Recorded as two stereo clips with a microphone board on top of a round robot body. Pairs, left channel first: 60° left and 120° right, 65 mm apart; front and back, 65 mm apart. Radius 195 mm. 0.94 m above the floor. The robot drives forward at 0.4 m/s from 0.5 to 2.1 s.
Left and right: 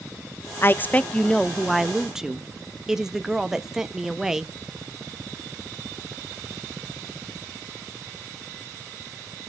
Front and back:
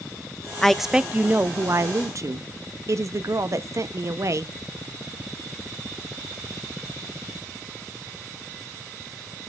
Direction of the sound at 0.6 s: 80° left.